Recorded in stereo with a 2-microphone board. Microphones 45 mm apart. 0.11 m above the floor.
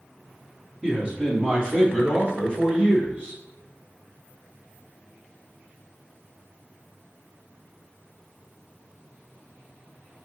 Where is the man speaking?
20° right (ahead or behind), 2 m; by 3.4 s 30° right (ahead or behind), 3.5 m.